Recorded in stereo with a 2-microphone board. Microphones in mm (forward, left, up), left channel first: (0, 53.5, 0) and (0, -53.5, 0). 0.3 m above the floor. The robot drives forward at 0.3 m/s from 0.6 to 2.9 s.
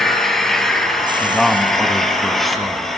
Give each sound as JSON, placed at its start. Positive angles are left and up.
{"t": 0.0, "sound": "an engine running", "side_deg": 5, "distance_m": 3.5}
{"t": 1.2, "sound": "a man speaking", "side_deg": 0, "distance_m": 2.0}